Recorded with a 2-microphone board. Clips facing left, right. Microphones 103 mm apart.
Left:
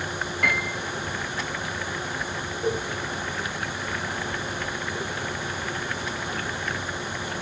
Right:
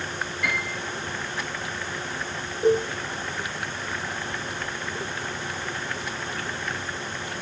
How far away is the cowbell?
About 1.0 m.